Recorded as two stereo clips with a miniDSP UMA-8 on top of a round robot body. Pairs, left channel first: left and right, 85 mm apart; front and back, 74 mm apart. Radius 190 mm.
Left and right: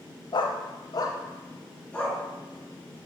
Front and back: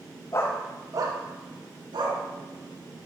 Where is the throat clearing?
I don't hear throat clearing.